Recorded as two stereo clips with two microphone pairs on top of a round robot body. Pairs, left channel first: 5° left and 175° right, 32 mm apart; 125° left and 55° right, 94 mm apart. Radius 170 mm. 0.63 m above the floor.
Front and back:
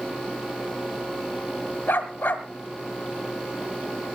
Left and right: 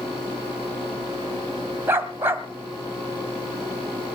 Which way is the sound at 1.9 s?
10° left.